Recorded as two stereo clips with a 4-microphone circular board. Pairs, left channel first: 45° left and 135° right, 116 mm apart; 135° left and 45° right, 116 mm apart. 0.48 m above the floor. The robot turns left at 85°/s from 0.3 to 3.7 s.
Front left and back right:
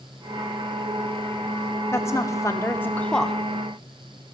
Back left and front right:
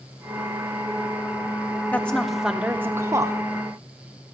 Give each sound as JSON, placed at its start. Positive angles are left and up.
{"t": 1.9, "sound": "a woman speaking", "azimuth_deg": 80, "distance_m": 0.7}